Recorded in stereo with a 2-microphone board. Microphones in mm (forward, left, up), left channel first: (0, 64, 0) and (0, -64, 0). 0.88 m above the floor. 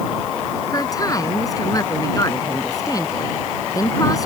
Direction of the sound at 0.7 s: 25° left (ahead or behind).